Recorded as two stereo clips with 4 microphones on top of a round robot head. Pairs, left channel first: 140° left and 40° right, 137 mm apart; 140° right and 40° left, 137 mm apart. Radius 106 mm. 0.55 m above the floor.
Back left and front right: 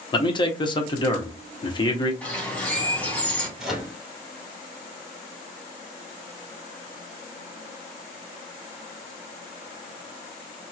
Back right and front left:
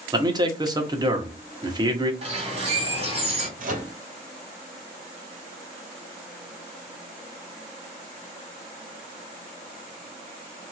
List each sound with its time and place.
0.1 s a man speaking: 95° left, 1.0 m
2.2 s a bird: 65° left, 2 m
3.6 s a microwave: 50° left, 1.5 m